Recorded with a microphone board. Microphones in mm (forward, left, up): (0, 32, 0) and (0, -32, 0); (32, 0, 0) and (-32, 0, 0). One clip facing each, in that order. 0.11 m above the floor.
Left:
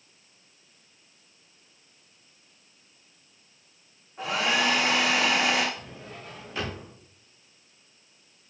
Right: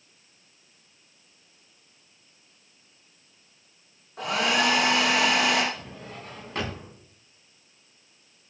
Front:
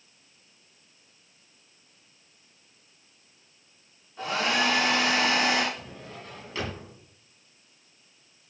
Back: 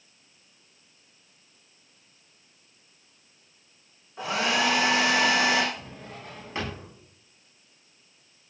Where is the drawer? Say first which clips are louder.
Right 1 dB, even; 120° right, 10 m.